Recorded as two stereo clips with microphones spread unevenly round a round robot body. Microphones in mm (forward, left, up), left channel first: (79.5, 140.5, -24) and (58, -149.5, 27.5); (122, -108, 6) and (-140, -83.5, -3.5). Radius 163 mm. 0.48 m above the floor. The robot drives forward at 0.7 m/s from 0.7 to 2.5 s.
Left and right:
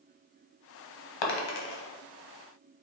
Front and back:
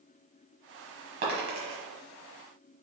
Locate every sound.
1.2 s a dropped coin: 105° left, 0.8 m; by 1.8 s 130° left, 1.0 m